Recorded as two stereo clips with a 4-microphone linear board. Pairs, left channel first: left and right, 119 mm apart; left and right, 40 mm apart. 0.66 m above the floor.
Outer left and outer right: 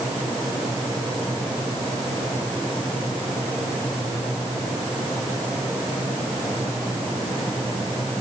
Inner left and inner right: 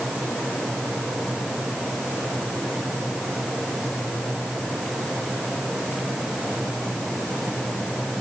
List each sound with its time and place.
Only background noise.